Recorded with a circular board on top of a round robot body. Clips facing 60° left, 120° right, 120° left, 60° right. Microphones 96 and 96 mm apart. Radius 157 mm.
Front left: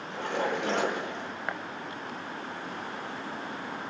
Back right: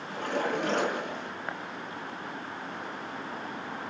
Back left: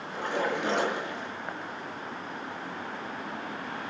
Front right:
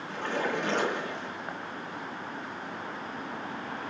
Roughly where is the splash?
Behind.